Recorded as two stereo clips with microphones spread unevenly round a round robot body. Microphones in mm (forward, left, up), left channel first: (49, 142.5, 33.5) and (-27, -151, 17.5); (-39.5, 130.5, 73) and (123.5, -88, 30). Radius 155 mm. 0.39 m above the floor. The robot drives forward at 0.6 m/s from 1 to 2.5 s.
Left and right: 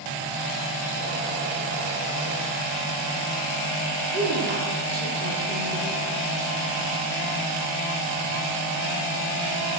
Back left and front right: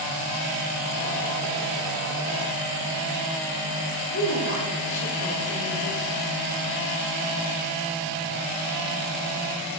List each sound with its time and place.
4.1 s a woman speaking: 165° right, 6.5 m